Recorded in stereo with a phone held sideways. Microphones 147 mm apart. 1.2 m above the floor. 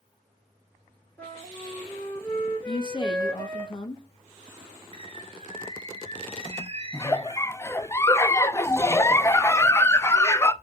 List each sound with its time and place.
1.2 s a flute: 15° left (ahead or behind), 4.5 m
2.7 s a woman speaking: 35° left (ahead or behind), 2 m
4.9 s a bird: 45° right (ahead or behind), 0.7 m
6.9 s a giggle: 20° left (ahead or behind), 0.6 m